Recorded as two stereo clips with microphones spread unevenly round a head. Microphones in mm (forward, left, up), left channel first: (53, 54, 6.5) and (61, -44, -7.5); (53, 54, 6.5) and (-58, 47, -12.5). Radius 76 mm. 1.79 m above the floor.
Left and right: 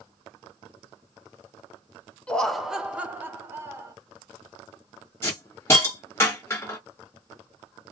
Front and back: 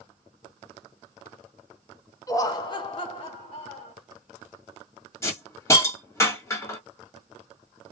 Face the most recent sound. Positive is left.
turn(degrees=50)